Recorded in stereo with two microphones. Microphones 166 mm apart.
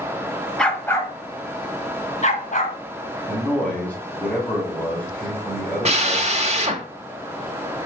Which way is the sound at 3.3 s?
10° left (ahead or behind).